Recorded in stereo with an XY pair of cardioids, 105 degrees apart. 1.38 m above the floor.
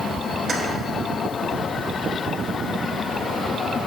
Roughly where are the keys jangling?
Ahead right.